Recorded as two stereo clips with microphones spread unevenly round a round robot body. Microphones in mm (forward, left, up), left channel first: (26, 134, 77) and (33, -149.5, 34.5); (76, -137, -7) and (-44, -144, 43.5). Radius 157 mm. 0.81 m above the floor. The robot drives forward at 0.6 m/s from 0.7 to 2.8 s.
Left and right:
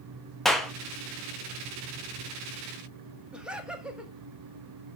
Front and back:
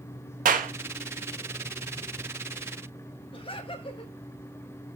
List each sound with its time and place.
0.5 s a clap: 175° right, 0.9 m
3.3 s laughter: 5° right, 1.6 m